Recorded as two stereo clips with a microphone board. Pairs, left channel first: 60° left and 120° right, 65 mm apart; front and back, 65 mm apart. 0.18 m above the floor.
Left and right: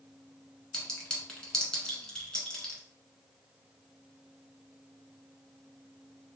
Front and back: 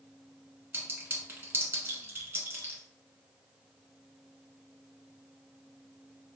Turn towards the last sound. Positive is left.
turn(degrees=135)